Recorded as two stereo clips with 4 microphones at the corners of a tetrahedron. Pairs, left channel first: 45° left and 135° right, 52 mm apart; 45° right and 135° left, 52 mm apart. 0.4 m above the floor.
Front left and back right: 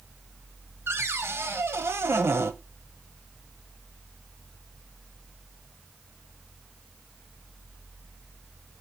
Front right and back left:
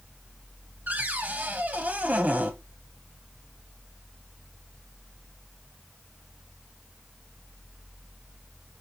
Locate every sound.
0.9 s a cupboard door: 165° right, 1.0 m